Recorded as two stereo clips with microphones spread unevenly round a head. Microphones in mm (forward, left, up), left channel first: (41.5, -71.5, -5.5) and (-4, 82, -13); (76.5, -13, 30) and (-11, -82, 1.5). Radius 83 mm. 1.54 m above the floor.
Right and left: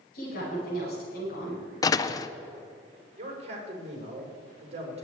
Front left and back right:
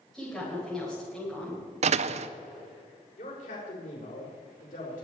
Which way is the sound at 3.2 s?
55° left.